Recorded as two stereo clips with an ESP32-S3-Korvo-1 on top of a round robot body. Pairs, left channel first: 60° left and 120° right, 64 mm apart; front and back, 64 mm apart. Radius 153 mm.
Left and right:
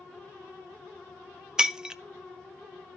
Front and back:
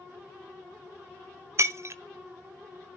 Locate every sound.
1.6 s breaking glass: 165° left, 0.8 m